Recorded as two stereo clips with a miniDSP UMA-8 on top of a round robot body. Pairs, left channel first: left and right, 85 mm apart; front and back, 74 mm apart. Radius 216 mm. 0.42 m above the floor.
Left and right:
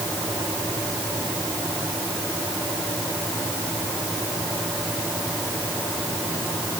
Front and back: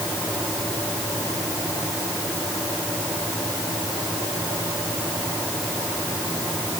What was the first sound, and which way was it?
Only background noise.